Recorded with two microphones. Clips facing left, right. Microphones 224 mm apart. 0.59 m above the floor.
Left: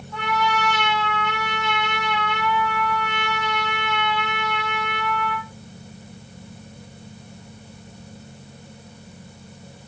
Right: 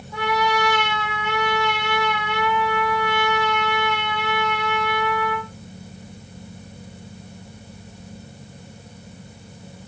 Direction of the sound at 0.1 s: 10° right (ahead or behind).